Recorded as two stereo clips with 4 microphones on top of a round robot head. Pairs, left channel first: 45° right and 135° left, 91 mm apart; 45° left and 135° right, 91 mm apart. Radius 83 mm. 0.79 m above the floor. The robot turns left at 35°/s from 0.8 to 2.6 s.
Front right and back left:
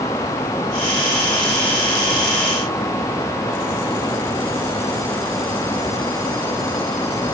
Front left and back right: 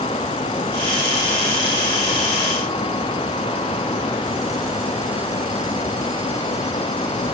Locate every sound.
Only background noise.